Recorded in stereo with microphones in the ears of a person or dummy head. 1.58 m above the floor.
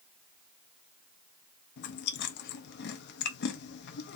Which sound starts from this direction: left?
Chewing, at 1.8 s.